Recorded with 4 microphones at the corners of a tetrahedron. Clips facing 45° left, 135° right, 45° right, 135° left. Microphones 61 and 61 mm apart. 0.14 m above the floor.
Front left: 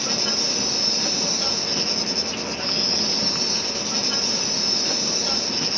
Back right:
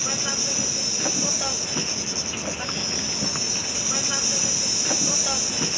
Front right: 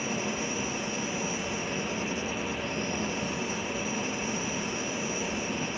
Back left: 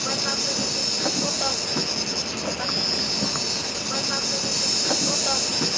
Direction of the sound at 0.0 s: 150° left.